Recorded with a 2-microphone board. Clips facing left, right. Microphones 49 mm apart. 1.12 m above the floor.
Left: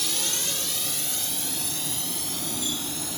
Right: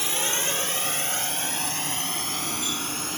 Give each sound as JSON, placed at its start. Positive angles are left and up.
{"t": 0.0, "sound": "a drone", "side_deg": -30}